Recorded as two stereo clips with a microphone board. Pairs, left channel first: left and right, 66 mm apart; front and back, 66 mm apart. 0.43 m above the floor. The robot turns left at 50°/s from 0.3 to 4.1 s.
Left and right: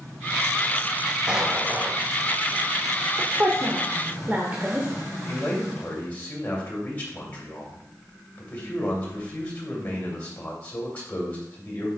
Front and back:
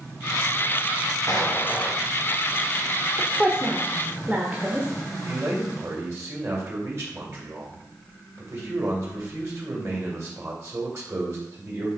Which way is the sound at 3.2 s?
90° right.